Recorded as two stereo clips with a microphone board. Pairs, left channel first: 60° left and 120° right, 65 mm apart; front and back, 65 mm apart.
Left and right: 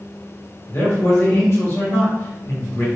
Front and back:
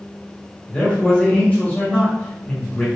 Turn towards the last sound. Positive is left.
turn(degrees=55)